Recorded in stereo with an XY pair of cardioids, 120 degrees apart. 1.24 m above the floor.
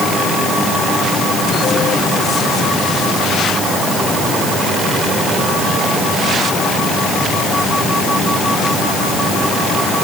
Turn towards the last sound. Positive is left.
No sound to turn to.